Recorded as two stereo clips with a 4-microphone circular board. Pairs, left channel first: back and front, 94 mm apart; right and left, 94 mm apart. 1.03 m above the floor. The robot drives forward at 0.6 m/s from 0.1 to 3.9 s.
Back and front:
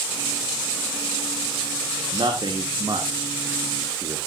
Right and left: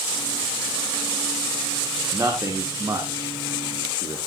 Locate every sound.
2.1 s a man speaking: 30° left, 2.5 m; by 4.2 s 50° left, 1.6 m